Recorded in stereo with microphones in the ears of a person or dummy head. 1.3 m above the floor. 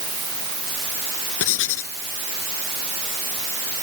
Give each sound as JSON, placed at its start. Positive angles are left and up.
{"t": 1.4, "sound": "writing", "side_deg": 75}